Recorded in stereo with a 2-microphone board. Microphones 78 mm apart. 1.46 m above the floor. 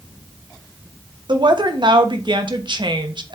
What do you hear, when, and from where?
1.3 s a woman speaking: 80° right, 1.2 m